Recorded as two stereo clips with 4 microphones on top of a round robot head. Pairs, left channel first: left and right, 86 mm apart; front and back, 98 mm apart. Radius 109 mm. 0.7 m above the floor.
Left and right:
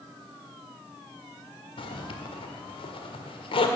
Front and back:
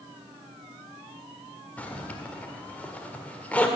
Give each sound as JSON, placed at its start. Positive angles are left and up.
{"t": 1.8, "sound": "a zipper", "azimuth_deg": 75, "distance_m": 1.6}